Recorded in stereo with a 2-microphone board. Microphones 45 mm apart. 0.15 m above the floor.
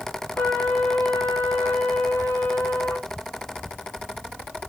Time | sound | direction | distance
0.4 | a trumpet | 50° left (ahead or behind) | 1.1 m